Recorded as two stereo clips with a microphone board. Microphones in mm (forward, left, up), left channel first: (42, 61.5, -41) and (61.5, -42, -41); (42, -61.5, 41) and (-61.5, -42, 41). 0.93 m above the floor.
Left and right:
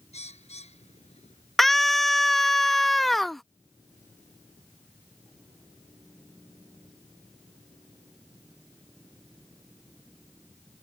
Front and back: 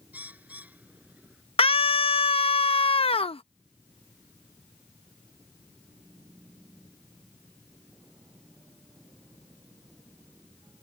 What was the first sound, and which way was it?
A bird, 95° left.